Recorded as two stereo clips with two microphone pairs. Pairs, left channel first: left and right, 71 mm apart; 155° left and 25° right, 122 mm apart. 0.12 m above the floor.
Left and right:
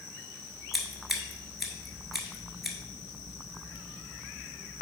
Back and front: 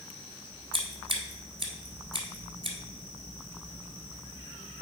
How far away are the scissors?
About 1.4 m.